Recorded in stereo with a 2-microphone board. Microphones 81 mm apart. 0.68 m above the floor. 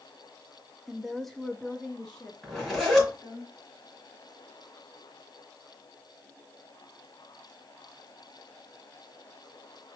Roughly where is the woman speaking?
Centre.